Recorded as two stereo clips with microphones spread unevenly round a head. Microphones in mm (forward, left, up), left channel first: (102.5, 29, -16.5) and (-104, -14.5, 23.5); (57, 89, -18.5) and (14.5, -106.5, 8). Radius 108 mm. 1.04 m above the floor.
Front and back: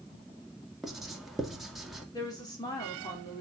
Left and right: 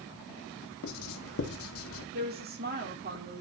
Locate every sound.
0.8 s writing: 100° left, 2 m
2.1 s a woman speaking: 60° right, 3 m